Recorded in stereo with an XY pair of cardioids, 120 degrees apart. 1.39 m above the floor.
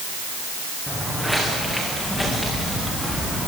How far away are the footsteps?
About 7.5 m.